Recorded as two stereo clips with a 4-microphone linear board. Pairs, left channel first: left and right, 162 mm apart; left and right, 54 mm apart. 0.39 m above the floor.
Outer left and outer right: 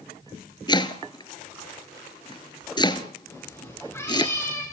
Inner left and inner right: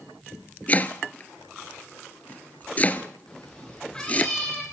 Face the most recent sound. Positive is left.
turn(degrees=15)  # may be behind; listen again after turning